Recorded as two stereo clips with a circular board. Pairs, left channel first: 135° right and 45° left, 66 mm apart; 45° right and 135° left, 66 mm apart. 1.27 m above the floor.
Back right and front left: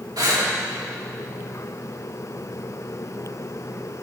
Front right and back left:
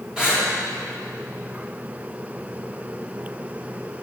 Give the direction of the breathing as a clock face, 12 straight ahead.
10 o'clock.